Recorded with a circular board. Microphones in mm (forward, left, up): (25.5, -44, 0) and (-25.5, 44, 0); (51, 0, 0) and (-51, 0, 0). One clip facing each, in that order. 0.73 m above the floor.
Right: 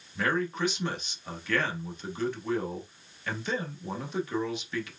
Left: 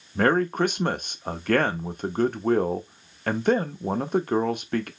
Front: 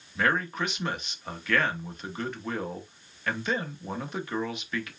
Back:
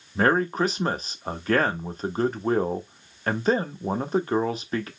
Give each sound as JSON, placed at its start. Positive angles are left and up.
{"t": 0.1, "sound": "a man speaking", "azimuth_deg": 135, "distance_m": 0.9}